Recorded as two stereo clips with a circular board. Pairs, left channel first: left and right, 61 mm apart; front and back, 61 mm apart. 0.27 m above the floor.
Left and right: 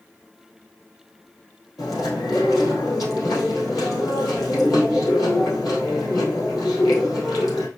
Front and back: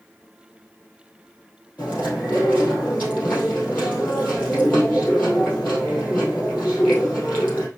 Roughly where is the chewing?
Ahead left.